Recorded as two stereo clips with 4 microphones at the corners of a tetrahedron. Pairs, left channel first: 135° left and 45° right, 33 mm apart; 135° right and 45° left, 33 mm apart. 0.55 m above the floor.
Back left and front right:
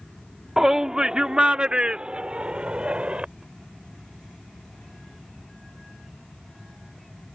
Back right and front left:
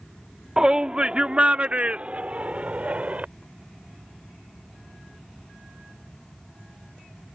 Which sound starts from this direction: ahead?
A shout, at 0.6 s.